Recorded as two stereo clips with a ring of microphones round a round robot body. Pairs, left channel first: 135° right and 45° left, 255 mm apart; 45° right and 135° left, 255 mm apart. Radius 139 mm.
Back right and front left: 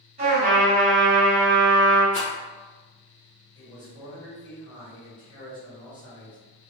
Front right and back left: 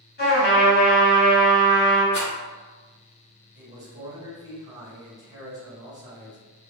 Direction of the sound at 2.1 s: 80° right.